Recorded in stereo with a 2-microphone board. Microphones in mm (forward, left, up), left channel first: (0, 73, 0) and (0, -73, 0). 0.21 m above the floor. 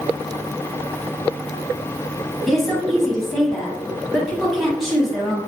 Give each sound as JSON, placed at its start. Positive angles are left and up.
{"t": 2.5, "sound": "a woman speaking", "side_deg": 0, "distance_m": 1.0}